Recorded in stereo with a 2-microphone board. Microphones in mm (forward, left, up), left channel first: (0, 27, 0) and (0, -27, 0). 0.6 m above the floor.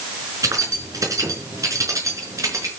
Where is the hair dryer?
No hair dryer in this recording.